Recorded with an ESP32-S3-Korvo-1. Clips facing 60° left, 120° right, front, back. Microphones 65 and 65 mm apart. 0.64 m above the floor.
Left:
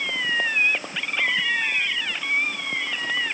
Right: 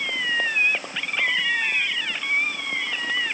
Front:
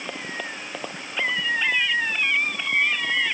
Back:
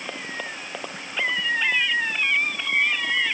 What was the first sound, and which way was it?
Only background noise.